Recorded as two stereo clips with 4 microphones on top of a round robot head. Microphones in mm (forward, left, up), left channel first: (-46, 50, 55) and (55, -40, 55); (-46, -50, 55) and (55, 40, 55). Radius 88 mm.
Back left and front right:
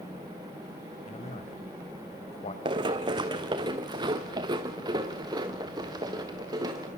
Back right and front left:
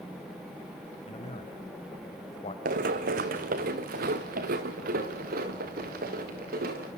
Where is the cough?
No cough in this recording.